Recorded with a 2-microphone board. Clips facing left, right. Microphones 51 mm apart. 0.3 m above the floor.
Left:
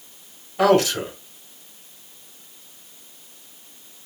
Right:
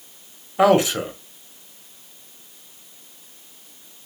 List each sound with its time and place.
0.6 s a man speaking: 20° right (ahead or behind), 1.3 m